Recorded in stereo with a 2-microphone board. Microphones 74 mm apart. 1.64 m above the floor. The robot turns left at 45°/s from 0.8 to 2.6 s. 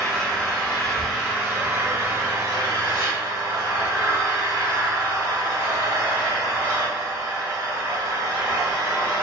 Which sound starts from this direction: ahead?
An engine running, at 0.0 s.